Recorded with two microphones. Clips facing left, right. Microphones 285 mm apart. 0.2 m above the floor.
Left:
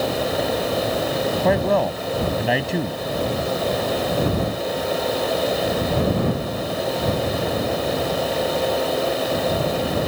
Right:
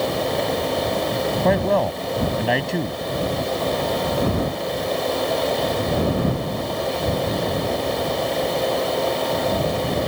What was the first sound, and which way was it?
A man speaking, centre (ahead or behind).